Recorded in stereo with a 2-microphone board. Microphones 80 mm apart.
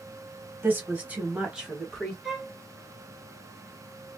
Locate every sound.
0.6 s a woman speaking: 25° right (ahead or behind), 1.2 m; by 2.1 s centre (ahead or behind), 1.5 m
2.2 s a violin: centre (ahead or behind), 0.9 m